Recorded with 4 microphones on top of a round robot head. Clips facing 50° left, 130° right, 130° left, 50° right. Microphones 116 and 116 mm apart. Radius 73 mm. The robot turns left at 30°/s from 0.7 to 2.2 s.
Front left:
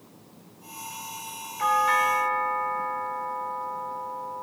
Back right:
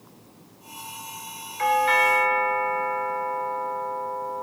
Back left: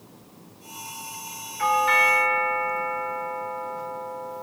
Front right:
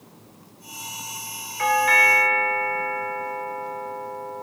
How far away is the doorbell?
About 1.4 m.